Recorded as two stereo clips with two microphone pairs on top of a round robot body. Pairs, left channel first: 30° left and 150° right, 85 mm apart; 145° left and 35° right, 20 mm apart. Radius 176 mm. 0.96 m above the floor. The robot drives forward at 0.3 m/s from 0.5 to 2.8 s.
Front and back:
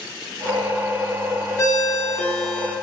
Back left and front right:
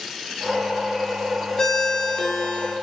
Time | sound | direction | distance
1.6 | a ringtone | 80° left | 0.5 m